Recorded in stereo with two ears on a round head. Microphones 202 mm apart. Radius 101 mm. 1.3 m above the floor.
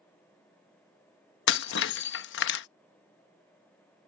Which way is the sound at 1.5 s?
55° left (ahead or behind).